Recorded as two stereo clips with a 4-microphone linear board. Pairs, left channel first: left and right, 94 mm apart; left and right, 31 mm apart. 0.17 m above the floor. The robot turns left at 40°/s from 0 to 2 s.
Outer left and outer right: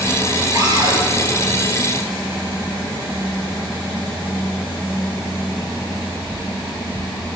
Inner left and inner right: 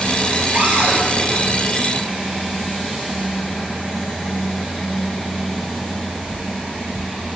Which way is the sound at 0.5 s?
40° right (ahead or behind).